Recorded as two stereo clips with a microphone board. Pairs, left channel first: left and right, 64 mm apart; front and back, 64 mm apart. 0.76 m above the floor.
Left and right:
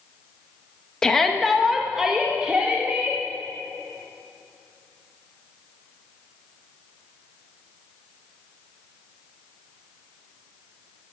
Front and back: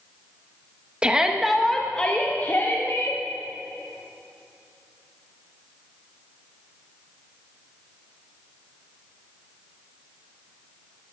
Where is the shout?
150° left, 1.1 m; by 3.2 s 25° right, 1.5 m.